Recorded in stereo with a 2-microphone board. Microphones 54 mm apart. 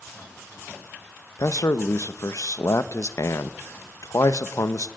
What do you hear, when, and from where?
1.4 s a man speaking: 75° left (ahead or behind), 1.1 m